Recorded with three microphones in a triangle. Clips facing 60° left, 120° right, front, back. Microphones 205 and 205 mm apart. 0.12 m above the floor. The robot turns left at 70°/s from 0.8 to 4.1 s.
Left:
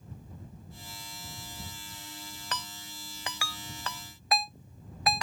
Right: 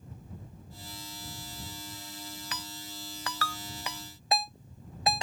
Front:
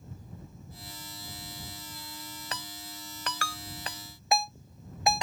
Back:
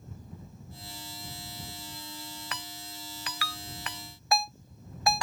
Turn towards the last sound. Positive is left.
turn(degrees=-65)